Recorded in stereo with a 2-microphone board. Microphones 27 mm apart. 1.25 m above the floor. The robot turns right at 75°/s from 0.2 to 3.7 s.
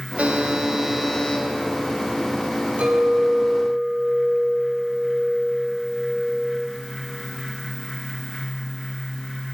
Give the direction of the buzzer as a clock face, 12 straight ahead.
2 o'clock.